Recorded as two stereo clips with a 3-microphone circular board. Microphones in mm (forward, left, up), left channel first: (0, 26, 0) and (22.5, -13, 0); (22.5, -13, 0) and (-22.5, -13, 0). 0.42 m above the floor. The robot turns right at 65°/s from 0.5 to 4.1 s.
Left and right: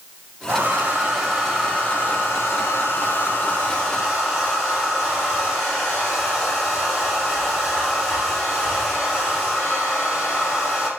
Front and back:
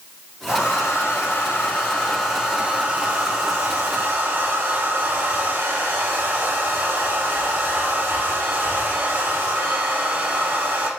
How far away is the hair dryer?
About 3.5 m.